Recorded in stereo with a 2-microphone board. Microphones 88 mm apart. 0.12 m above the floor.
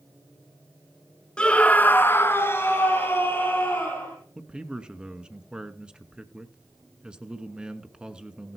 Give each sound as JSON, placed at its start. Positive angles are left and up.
{"t": 1.4, "sound": "a scream", "side_deg": 10, "distance_m": 1.3}
{"t": 4.3, "sound": "a man speaking", "side_deg": -10, "distance_m": 1.3}